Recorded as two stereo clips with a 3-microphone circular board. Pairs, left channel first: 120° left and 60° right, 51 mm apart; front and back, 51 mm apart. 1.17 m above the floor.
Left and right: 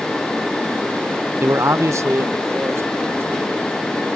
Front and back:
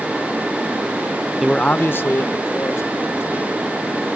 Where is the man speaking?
100° right; by 4.1 s 20° right.